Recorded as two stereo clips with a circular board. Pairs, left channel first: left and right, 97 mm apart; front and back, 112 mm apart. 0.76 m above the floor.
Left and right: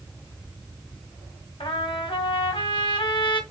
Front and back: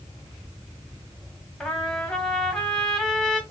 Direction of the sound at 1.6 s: 85° left.